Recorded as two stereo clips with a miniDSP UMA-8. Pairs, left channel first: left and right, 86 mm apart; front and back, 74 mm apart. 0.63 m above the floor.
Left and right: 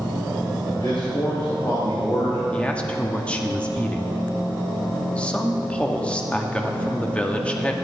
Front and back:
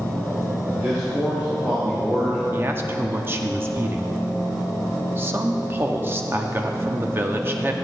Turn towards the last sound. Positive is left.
turn(degrees=155)